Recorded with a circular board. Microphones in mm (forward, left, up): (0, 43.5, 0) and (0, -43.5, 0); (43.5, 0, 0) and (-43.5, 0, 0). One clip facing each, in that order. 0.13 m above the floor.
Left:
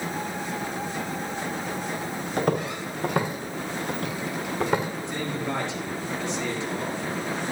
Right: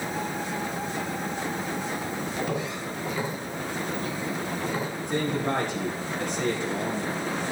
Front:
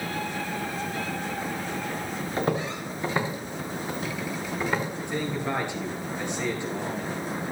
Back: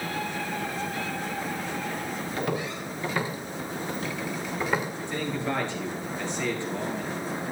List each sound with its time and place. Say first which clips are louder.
2.4 s footsteps: left 8 dB, front 4 dB; 55° left, 3 m; by 4.9 s 95° left, 3 m
5.1 s a man speaking: right 6 dB, even; 70° right, 3 m